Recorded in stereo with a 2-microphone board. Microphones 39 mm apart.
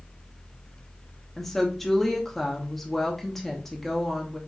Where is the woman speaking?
5° left (ahead or behind), 0.8 m.